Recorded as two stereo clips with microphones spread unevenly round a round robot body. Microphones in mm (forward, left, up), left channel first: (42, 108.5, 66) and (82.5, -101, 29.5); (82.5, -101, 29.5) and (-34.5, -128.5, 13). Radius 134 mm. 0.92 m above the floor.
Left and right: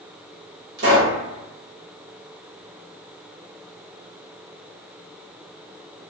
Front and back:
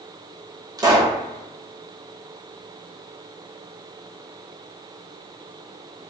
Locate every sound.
0.8 s a pop: 110° right, 1.0 m